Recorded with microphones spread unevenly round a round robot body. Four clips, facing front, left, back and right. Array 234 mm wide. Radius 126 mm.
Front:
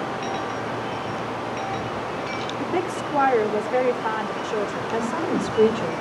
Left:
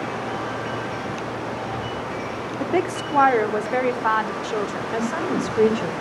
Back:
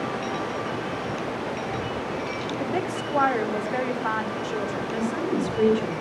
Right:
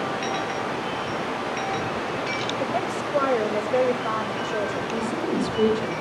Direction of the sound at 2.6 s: 65° left.